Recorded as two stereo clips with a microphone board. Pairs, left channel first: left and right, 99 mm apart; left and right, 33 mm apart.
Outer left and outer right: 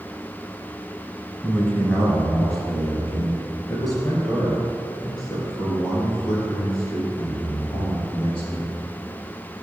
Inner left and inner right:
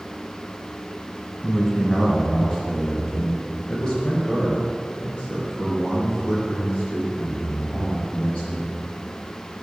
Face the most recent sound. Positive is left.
turn(degrees=50)  # may be behind; listen again after turning